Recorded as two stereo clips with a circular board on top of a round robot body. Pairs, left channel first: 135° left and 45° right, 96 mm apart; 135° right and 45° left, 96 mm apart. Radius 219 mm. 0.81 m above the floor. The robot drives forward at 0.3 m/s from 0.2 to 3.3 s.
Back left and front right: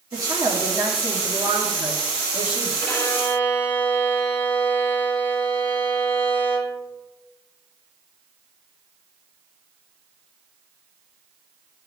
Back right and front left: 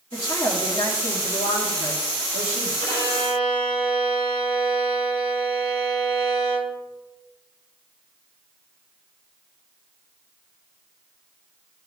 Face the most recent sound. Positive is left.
turn(degrees=-160)